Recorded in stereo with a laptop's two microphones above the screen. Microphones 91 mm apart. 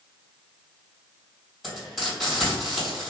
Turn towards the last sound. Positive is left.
turn(degrees=0)  # may be behind; listen again after turning